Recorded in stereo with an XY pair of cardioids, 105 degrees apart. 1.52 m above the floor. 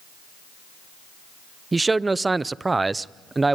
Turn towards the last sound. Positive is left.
turn(degrees=-20)